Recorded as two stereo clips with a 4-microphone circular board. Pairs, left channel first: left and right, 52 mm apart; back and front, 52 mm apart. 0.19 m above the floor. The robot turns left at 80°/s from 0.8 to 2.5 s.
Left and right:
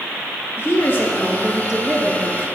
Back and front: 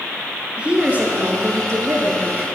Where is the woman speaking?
65° left, 3 m; by 2.5 s 70° right, 3 m.